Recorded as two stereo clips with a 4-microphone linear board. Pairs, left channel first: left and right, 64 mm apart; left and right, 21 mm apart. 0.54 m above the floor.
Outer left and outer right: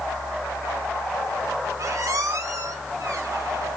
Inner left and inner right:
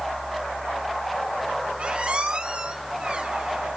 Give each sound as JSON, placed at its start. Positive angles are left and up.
{"t": 1.8, "sound": "a squeak", "side_deg": -75, "distance_m": 3.5}